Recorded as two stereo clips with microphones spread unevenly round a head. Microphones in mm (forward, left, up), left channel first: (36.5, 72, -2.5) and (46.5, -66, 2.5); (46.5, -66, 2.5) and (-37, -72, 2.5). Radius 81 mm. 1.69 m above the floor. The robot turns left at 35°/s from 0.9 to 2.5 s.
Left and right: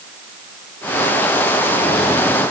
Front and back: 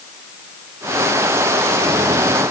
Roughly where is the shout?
I don't hear a shout.